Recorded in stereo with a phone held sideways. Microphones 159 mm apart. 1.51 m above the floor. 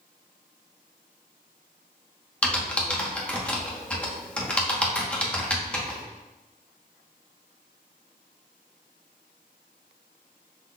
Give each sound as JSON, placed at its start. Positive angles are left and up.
{"t": 2.4, "sound": "typing on a keyboard", "side_deg": 5, "distance_m": 0.8}